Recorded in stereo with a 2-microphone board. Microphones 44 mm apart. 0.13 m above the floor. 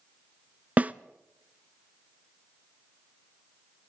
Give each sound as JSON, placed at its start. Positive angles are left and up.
{"t": 0.8, "sound": "a snare drum", "side_deg": -35, "distance_m": 0.5}